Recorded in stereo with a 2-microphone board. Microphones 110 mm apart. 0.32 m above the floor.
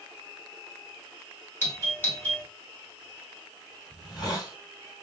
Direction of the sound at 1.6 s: 25° left (ahead or behind).